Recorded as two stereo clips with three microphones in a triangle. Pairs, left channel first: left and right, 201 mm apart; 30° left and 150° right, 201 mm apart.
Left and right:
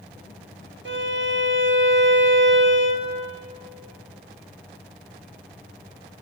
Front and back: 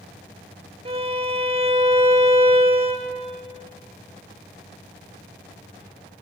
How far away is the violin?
About 1.0 m.